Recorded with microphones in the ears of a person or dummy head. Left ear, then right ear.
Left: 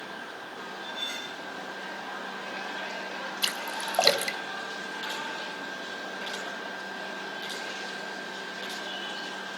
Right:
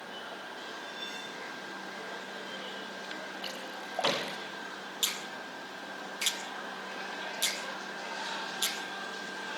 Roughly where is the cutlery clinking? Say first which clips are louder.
Left 9 dB; left.